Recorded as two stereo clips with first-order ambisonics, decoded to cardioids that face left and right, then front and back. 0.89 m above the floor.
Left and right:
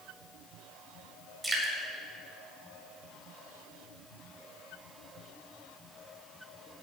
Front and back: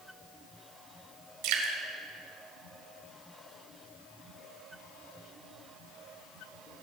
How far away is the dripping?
About 2 m.